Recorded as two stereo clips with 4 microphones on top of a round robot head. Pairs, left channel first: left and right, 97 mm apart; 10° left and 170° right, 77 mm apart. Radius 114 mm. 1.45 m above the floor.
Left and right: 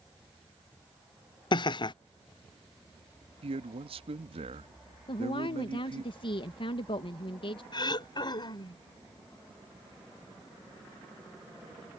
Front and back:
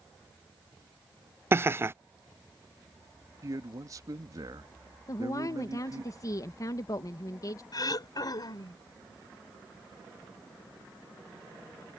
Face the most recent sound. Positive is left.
turn(degrees=45)